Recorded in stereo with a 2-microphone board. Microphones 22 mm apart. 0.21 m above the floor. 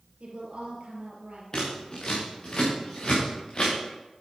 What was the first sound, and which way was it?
A woman speaking, 55° right (ahead or behind).